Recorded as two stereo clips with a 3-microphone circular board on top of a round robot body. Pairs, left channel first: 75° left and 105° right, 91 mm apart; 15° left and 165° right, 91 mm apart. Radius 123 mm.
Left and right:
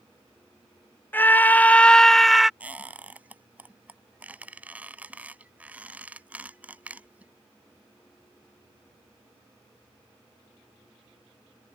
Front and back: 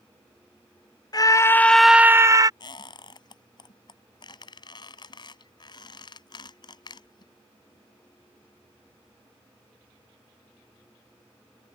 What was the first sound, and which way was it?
A scream, 15° left.